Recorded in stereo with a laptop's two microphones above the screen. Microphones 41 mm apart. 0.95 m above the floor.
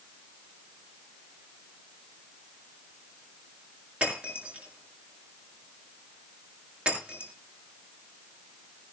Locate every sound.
4.0 s breaking glass: 30° right (ahead or behind), 7 m